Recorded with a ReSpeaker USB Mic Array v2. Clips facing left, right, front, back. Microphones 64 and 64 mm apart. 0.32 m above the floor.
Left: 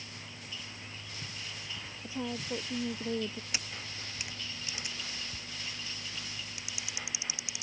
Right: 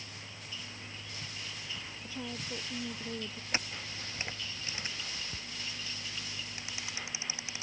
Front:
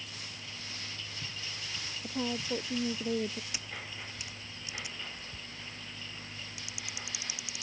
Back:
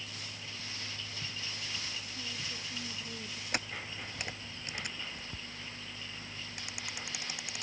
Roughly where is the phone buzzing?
No phone buzzing in this recording.